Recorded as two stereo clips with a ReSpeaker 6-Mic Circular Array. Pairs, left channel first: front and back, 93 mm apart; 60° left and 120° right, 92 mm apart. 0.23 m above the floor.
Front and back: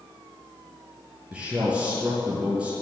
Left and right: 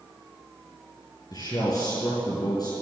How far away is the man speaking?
About 5 m.